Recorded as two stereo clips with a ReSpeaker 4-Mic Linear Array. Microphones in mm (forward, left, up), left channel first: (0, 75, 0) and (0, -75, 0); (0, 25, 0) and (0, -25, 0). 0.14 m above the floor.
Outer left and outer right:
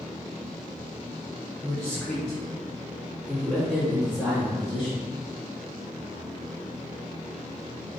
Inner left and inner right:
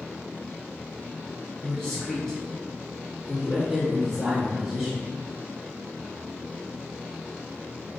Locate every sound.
1.6 s a man speaking: 10° left (ahead or behind), 1.4 m; by 5.1 s centre (ahead or behind), 1.9 m